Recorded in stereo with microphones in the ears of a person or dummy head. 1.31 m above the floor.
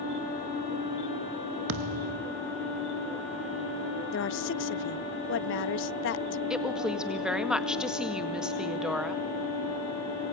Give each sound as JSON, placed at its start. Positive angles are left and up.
{"t": 1.7, "sound": "a thud", "side_deg": -40, "distance_m": 0.8}
{"t": 4.1, "sound": "a woman speaking", "side_deg": 55, "distance_m": 0.7}
{"t": 6.5, "sound": "a woman speaking", "side_deg": 5, "distance_m": 2.0}